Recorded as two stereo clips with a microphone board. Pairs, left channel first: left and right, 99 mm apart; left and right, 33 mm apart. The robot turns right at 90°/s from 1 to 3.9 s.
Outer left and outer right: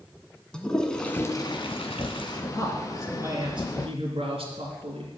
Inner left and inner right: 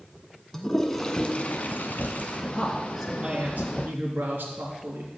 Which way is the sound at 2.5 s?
145° left.